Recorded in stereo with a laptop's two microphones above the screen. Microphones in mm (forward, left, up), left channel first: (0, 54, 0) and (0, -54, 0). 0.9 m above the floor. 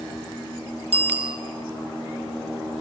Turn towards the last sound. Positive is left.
turn(degrees=-75)  # may be behind; listen again after turning